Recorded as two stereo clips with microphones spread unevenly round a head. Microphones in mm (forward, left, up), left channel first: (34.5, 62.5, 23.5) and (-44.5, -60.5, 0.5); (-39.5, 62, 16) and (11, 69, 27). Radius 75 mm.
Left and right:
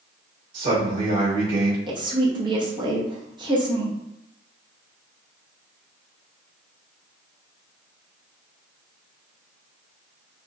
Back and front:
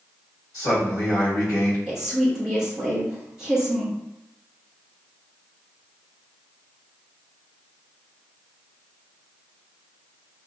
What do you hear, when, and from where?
0.5 s a man speaking: 135° right, 1.3 m
1.9 s a woman speaking: 75° right, 0.8 m